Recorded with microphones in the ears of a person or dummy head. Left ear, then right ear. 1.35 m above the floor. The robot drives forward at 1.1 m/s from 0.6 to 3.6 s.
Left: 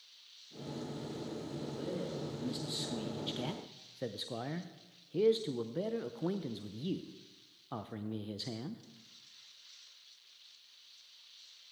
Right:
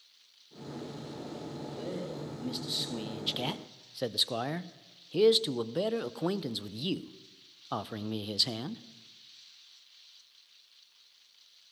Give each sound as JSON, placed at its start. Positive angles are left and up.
{"t": 1.7, "sound": "a man speaking", "side_deg": -5, "distance_m": 2.5}